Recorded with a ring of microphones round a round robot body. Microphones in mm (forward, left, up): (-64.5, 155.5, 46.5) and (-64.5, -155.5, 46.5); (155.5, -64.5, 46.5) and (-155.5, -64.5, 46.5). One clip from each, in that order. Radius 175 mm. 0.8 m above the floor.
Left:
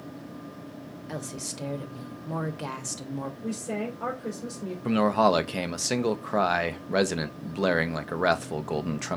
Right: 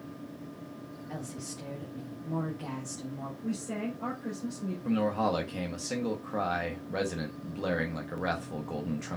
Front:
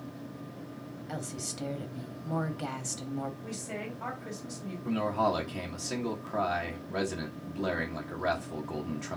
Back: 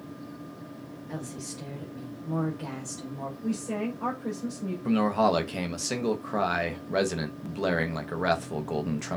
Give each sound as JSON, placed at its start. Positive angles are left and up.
{"t": 1.1, "sound": "a woman speaking", "azimuth_deg": 55, "distance_m": 1.0}
{"t": 3.4, "sound": "a woman speaking", "azimuth_deg": 80, "distance_m": 3.0}
{"t": 4.8, "sound": "a man speaking", "azimuth_deg": 120, "distance_m": 0.7}